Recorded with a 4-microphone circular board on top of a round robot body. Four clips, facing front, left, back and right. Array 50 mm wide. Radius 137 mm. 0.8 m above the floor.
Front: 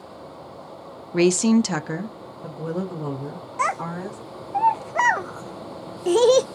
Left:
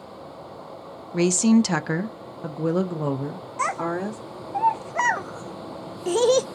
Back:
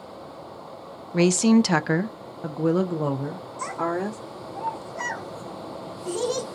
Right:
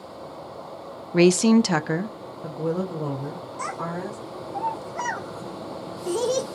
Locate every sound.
1.1 s a woman speaking: 75° right, 0.6 m; by 4.2 s 140° left, 1.7 m
3.6 s a child speaking: 30° left, 0.5 m